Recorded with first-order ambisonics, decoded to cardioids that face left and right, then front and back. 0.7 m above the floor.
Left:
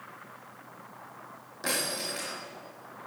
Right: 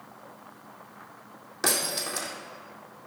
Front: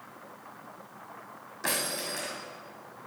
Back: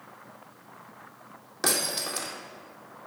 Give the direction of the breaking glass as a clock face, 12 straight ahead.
5 o'clock.